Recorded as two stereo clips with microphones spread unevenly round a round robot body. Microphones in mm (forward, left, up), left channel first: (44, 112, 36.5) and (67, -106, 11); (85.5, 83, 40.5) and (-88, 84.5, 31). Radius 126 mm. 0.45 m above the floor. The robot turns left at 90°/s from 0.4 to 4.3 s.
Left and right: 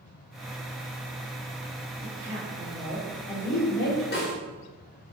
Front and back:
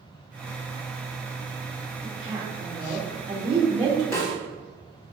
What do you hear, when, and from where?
2.0 s a woman speaking: 90° right, 1.5 m; by 4.0 s 90° left, 1.5 m
4.1 s a snare drum: 70° left, 1.5 m; by 4.3 s 55° left, 1.5 m